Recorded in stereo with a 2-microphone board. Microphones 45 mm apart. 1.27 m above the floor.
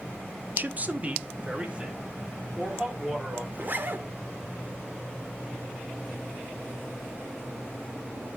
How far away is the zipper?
About 1.1 m.